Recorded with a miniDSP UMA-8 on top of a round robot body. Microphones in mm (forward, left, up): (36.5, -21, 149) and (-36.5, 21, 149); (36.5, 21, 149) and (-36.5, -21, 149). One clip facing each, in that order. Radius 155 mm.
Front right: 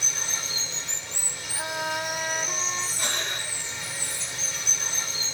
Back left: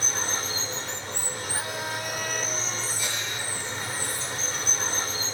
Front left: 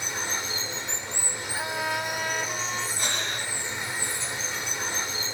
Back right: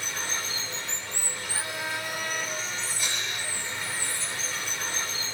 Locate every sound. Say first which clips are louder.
0.0 s running water: back left 5 dB, front left 2 dB; 100° left, 0.9 m
1.6 s a trumpet: front right 6 dB, front left 5 dB; 10° left, 2.5 m
3.0 s breathing: front right 1 dB, front left 3 dB; 5° right, 1.4 m